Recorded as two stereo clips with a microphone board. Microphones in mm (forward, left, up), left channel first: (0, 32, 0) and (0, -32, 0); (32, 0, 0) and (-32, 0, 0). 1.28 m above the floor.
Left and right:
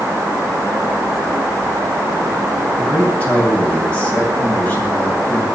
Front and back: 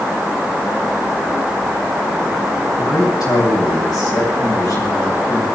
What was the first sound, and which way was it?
A man speaking, 20° left.